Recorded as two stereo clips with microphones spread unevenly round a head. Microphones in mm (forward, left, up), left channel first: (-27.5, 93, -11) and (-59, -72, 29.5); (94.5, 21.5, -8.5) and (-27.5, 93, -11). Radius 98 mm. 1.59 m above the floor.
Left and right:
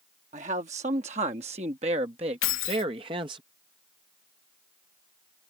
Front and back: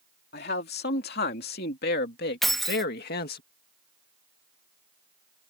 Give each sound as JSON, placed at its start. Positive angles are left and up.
{"t": 0.3, "sound": "a man speaking", "azimuth_deg": -45}
{"t": 2.4, "sound": "keys jangling", "azimuth_deg": 60}